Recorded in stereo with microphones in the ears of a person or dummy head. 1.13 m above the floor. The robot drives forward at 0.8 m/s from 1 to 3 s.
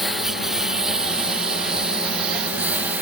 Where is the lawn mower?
5° left (ahead or behind); by 3.0 s centre (ahead or behind).